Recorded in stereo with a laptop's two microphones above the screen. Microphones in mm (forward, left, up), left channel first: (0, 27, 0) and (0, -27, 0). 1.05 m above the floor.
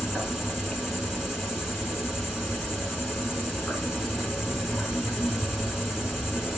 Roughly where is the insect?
Centre.